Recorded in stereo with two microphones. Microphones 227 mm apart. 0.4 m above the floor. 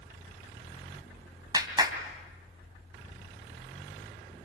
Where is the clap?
20° right (ahead or behind), 2.5 m.